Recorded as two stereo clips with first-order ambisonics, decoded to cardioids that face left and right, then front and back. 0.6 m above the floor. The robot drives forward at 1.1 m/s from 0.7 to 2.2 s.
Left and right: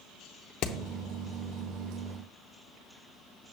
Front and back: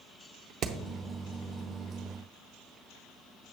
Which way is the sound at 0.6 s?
125° left.